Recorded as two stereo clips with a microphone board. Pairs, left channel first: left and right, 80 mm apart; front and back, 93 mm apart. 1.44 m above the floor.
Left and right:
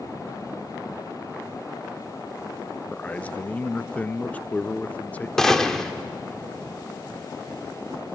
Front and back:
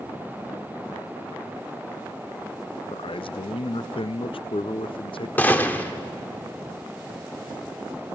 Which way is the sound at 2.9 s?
15° left.